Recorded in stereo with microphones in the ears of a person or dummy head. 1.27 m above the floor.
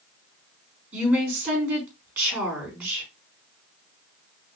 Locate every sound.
0.9 s a woman speaking: 10° right (ahead or behind), 4 m